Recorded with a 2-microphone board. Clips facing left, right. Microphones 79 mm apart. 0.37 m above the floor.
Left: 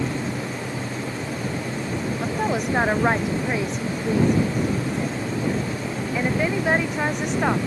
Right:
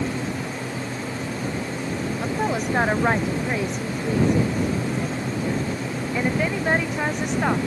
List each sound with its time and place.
2.2 s a woman speaking: centre (ahead or behind); by 7.7 s 5° left (ahead or behind)